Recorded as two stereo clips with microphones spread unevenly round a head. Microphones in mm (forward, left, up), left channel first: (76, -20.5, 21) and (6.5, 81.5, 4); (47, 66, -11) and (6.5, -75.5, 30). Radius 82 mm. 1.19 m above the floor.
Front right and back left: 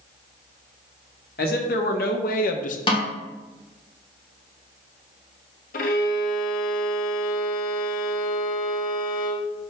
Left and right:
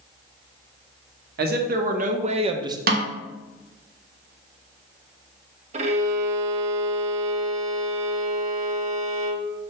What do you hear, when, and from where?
1.4 s a man speaking: 85° right, 1.3 m; by 2.8 s 40° right, 0.9 m
2.9 s a snare drum: 115° right, 0.9 m
5.7 s a violin: 65° right, 0.9 m